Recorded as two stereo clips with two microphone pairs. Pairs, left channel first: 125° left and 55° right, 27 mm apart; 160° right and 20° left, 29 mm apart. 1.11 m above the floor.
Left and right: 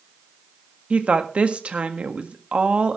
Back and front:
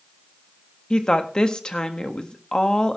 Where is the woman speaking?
95° right, 1.6 m.